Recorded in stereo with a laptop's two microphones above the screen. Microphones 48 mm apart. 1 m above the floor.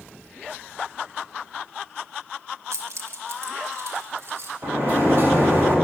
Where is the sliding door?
45° right (ahead or behind), 1.5 m.